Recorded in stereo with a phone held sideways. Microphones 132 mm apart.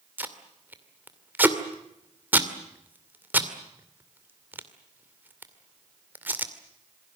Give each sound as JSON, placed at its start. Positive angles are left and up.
{"t": 0.2, "sound": "tape being pulled", "side_deg": -15, "distance_m": 2.5}